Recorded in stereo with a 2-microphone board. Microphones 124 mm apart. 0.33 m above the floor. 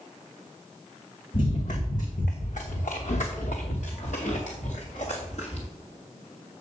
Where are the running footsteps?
70° left (ahead or behind), 1.9 m; by 5.7 s 55° left (ahead or behind), 3.5 m.